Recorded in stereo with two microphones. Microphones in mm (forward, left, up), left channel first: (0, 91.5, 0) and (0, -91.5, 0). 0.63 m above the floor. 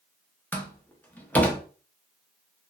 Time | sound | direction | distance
0.5 | a door slam | 10° left (ahead or behind) | 0.6 m